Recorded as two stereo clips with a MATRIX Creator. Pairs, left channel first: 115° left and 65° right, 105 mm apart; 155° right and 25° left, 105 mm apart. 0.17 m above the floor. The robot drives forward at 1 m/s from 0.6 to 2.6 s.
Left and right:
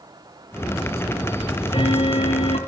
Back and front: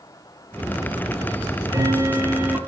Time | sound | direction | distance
1.4 | ticking | 70° left | 3 m